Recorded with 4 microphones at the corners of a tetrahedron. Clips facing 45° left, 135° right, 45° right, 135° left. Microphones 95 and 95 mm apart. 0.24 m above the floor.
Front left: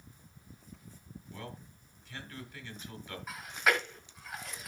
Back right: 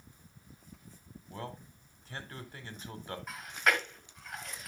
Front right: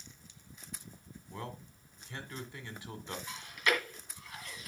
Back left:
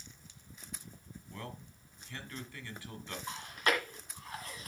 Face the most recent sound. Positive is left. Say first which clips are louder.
# front left 1 dB, back left 1 dB
turn(degrees=130)